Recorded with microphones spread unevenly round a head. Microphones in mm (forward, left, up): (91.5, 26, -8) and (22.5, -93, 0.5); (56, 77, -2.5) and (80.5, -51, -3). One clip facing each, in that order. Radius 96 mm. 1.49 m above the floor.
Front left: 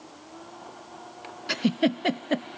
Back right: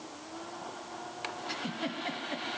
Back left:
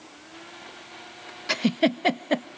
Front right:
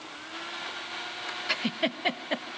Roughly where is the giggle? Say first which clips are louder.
Front left 15 dB, back left 8 dB; ahead left.